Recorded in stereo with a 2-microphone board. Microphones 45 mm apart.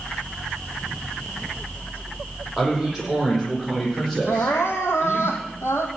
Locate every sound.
2.6 s a man speaking: 5° right (ahead or behind), 8 m; by 5.3 s 5° left (ahead or behind), 7.5 m
4.3 s crying: 80° left, 2.5 m